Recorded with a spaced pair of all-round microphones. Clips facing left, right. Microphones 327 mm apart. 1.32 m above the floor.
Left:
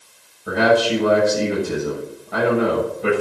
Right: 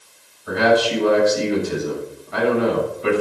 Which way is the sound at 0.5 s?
60° left (ahead or behind).